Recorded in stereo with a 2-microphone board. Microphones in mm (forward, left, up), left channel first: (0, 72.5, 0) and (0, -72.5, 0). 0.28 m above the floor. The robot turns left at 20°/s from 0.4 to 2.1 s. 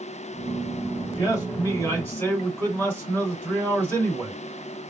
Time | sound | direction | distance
1.1 | a man speaking | 30° left (ahead or behind) | 1.7 m